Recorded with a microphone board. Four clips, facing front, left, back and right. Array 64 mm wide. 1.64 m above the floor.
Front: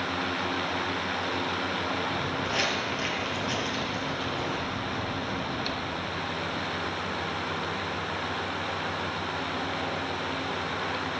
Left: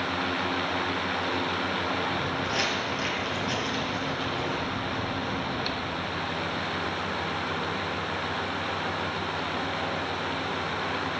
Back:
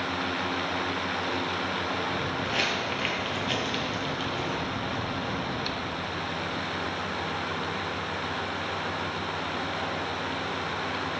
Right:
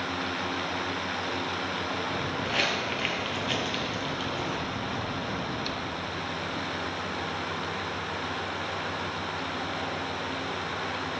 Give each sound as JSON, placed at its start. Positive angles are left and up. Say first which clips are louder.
{"t": 2.1, "sound": "footsteps", "louder": "left 1 dB, even", "azimuth_deg": -85, "distance_m": 1.7}